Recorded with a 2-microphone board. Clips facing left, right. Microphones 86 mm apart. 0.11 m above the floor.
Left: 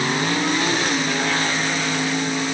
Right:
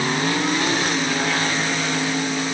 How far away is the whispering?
No whispering in this recording.